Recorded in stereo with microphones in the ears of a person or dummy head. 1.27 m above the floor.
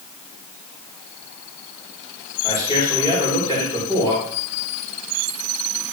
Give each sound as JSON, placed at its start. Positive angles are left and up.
{"t": 2.4, "sound": "a man speaking", "side_deg": 25, "distance_m": 4.0}